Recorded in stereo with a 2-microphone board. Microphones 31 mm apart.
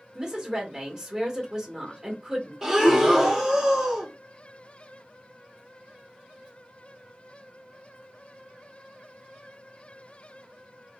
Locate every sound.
0.1 s a woman speaking: 20° right (ahead or behind), 1.4 m
2.6 s breathing: 10° right (ahead or behind), 0.8 m